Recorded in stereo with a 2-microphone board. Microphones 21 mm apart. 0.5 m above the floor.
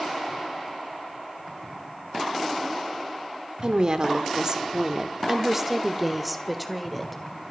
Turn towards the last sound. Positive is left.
turn(degrees=10)  # may be behind; listen again after turning